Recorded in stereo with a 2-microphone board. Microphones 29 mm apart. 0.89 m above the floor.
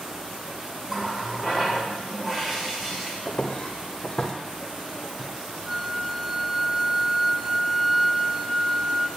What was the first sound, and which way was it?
A running tap, 20° right (ahead or behind).